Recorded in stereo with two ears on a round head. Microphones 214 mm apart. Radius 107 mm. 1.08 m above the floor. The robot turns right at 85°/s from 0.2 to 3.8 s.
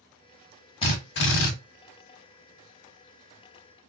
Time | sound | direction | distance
0.8 | a drill | 25° left | 1.1 m